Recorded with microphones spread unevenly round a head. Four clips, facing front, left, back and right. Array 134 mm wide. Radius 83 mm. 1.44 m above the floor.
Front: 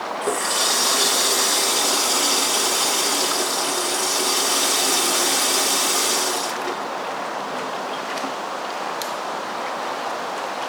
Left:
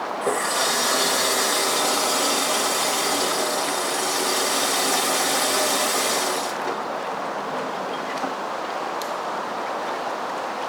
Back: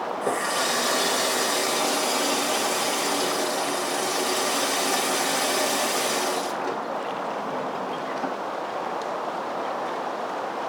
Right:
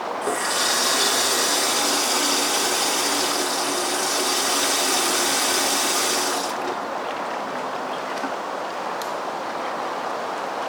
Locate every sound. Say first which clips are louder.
0.2 s a running tap: left 3 dB, front 2 dB; 140° left, 1.5 m